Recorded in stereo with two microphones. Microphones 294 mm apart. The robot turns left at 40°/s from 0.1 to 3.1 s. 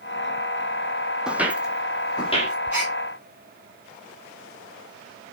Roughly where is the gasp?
Centre.